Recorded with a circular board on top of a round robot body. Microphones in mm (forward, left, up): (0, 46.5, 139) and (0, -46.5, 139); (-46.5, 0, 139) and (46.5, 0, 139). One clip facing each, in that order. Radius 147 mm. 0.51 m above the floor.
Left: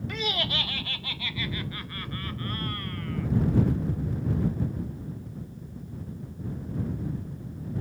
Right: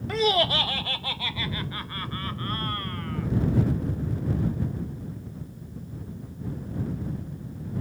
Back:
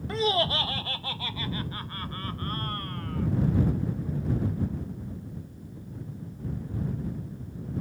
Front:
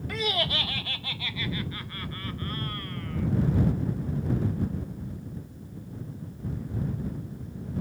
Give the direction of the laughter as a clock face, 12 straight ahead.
4 o'clock.